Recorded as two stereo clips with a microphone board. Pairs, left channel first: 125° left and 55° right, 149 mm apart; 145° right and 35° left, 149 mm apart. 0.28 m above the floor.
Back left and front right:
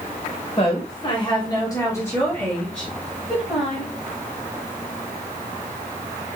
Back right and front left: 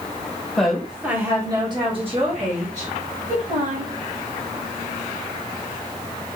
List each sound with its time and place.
0.6 s a woman speaking: 130° left, 1.3 m; by 3.9 s 30° left, 2 m